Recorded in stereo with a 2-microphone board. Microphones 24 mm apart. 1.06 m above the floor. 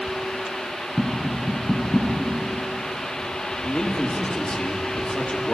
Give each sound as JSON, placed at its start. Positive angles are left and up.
{"t": 1.0, "sound": "tapping", "side_deg": 80, "distance_m": 6.5}
{"t": 3.6, "sound": "a man speaking", "side_deg": 60, "distance_m": 2.5}